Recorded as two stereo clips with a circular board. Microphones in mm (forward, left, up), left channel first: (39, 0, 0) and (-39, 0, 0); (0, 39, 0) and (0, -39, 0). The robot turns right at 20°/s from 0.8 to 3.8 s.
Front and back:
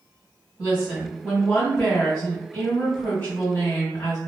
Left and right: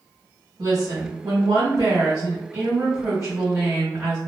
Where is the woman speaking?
85° right, 1.7 m; by 4.2 s 25° right, 1.7 m.